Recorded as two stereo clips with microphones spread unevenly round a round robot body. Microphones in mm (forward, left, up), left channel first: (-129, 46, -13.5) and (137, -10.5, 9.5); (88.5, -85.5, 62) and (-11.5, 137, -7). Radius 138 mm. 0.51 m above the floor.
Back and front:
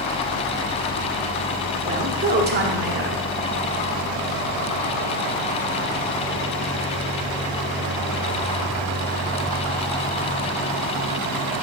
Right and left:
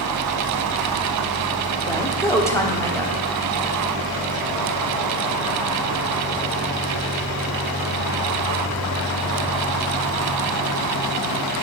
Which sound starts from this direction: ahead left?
A woman speaking, at 1.9 s.